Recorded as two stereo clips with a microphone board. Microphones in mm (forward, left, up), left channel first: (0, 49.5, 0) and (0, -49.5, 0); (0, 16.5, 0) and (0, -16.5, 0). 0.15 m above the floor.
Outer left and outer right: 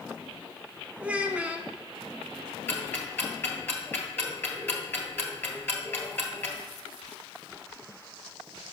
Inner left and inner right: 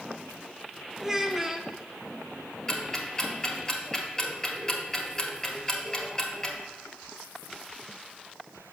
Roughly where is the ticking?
Left.